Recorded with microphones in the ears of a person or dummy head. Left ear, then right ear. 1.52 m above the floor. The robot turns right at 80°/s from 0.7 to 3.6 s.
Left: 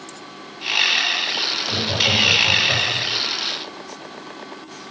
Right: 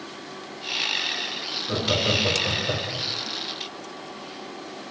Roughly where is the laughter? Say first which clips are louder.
Left 2 dB; right.